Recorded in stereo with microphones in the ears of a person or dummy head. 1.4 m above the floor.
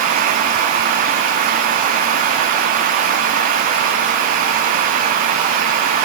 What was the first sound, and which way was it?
Only background noise.